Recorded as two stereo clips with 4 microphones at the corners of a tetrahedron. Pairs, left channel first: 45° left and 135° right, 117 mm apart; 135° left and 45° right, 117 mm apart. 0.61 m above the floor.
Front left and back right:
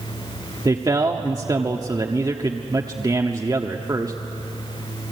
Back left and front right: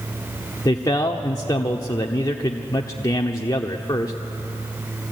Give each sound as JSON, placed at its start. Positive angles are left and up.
{"t": 0.7, "sound": "a man speaking", "azimuth_deg": 180, "distance_m": 1.3}